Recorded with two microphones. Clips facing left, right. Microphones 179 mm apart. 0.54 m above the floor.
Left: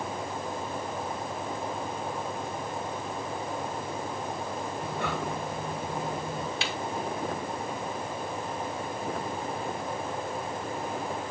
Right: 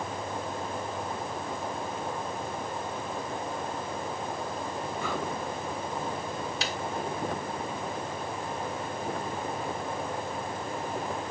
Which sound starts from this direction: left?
Breathing, at 4.8 s.